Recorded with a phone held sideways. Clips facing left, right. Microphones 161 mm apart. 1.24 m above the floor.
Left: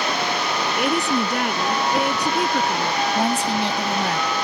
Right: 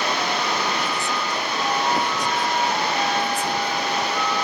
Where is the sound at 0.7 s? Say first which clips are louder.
Left 5 dB; 70° left (ahead or behind).